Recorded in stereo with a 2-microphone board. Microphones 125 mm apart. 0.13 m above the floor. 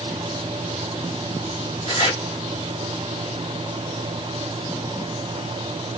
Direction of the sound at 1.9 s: 45° left (ahead or behind).